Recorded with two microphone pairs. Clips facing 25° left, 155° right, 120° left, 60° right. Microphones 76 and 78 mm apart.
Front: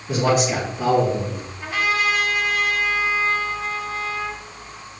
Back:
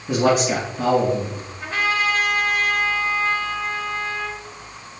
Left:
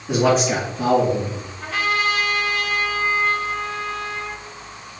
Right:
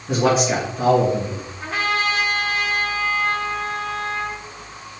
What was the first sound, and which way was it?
A man speaking, 155° right.